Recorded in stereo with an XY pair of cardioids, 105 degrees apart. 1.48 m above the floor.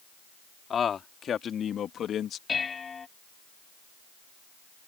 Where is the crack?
I don't hear a crack.